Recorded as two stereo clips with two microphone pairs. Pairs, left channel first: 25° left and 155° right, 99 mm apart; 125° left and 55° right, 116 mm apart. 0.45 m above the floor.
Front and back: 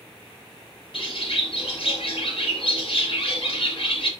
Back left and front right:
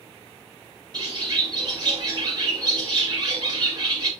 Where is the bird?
Straight ahead, 4 m.